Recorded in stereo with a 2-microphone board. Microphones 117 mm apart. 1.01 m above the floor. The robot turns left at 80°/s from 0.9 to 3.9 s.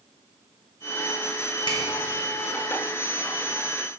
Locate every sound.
1.7 s a finger snap: 40° left (ahead or behind), 1.9 m; by 1.8 s 30° left (ahead or behind), 1.9 m